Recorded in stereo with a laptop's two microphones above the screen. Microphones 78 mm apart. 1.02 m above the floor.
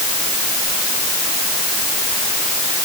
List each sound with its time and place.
Only background noise.